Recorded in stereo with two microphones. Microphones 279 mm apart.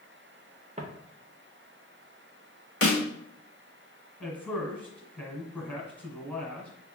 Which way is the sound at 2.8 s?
50° left (ahead or behind).